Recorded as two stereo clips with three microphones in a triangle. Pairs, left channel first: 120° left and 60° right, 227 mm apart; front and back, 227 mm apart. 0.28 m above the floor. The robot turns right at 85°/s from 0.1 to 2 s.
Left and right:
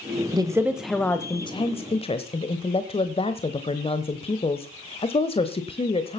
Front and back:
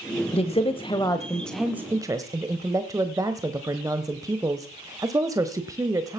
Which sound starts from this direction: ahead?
A woman speaking, at 0.3 s.